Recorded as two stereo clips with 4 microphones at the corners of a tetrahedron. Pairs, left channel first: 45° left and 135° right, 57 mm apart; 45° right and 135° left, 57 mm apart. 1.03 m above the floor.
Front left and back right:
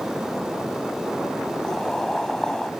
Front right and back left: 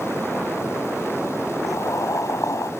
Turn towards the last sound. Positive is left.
turn(degrees=-35)